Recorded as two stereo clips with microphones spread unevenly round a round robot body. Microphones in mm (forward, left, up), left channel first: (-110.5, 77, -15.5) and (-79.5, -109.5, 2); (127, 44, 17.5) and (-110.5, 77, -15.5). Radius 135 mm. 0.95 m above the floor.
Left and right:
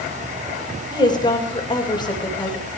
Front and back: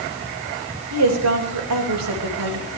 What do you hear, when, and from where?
0.9 s a woman speaking: 165° left, 4 m